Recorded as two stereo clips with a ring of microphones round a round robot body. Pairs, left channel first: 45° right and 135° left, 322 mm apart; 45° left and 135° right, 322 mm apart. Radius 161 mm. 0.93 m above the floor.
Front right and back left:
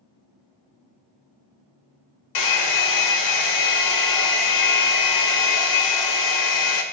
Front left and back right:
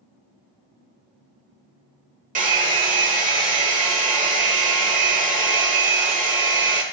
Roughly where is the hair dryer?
Right.